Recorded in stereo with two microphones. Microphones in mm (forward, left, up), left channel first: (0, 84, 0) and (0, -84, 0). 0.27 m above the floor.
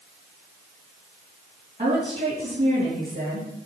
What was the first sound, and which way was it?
A woman speaking, 35° right (ahead or behind).